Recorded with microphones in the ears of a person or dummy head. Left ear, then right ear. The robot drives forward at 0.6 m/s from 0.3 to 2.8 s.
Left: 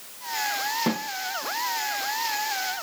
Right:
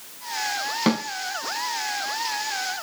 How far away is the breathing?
No breathing in this recording.